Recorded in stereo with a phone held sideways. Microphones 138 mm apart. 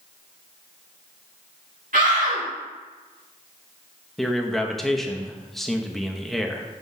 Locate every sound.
1.9 s a scream: 75° right (ahead or behind), 1.7 m
4.2 s a man speaking: centre (ahead or behind), 0.6 m